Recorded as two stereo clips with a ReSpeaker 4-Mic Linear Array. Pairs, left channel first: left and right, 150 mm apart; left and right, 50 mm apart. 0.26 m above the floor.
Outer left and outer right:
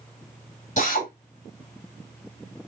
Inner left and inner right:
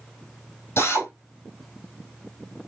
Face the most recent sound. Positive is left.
turn(degrees=55)  # may be behind; listen again after turning